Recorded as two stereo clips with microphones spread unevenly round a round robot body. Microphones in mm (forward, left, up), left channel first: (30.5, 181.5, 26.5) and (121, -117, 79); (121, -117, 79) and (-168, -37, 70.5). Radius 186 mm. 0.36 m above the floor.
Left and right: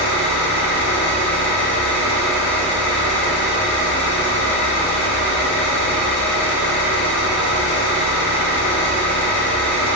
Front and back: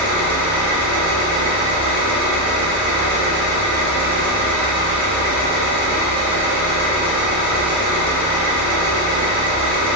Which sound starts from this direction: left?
An engine running, at 0.0 s.